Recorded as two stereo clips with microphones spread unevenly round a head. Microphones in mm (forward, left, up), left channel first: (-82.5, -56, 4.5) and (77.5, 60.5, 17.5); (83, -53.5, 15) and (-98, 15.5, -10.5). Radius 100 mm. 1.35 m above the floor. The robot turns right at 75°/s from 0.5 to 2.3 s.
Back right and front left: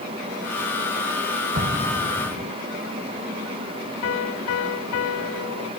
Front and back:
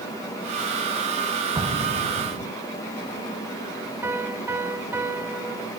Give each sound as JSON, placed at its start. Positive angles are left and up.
{"t": 1.6, "sound": "an explosion", "azimuth_deg": 85}
{"t": 4.0, "sound": "a piano", "azimuth_deg": -120}